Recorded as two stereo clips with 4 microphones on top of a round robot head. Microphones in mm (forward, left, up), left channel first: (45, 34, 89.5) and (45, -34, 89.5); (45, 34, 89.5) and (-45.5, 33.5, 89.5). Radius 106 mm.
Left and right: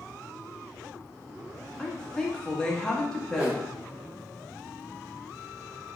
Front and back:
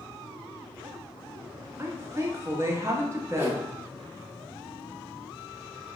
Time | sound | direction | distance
1.8 | a woman speaking | 160° left | 0.8 m
3.4 | a whoosh | 145° right | 1.3 m